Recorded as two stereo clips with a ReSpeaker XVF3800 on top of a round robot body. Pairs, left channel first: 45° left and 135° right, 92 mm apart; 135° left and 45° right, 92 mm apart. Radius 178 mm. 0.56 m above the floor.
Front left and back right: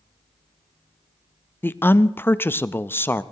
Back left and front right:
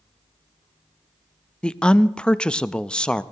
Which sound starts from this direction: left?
A woman speaking, at 1.6 s.